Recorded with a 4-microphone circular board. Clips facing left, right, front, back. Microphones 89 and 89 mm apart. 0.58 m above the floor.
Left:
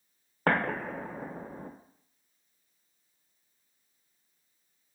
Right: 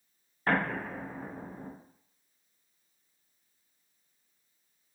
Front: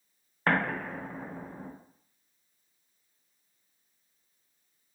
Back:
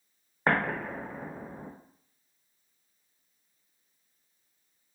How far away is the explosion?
About 0.9 m.